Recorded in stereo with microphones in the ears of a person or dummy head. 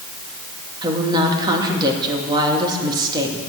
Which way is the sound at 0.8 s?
15° right (ahead or behind).